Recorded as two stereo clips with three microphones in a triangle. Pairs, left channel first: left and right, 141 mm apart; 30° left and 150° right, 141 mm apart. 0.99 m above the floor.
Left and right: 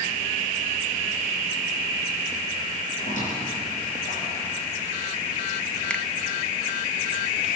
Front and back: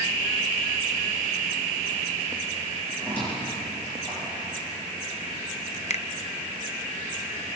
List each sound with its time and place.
3.0 s a squeak: 110° left, 9 m
5.9 s a finger snap: 10° left, 0.6 m